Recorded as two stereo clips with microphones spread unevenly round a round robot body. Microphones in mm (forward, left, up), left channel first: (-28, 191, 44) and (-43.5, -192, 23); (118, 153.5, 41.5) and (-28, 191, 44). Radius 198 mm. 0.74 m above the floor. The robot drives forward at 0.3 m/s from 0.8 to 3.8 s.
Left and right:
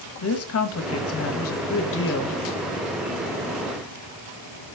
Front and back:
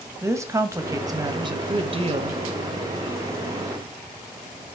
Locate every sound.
0.2 s a woman speaking: 105° left, 1.1 m; by 2.4 s 140° left, 1.3 m